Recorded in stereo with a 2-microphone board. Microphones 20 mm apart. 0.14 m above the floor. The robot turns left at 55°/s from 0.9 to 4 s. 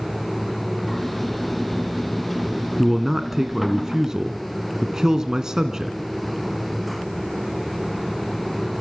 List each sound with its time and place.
2.8 s a man speaking: 5° right (ahead or behind), 1.6 m; by 6.0 s 30° right (ahead or behind), 1.6 m